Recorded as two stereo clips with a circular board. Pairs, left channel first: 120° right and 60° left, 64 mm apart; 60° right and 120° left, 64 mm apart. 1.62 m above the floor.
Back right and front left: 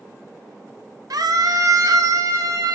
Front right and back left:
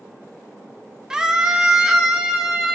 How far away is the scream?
About 1.2 m.